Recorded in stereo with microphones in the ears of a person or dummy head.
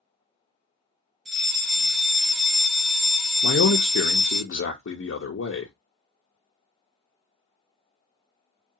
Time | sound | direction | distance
1.2 | a fire alarm | centre (ahead or behind) | 0.6 m
3.4 | a man speaking | 65° left (ahead or behind) | 0.6 m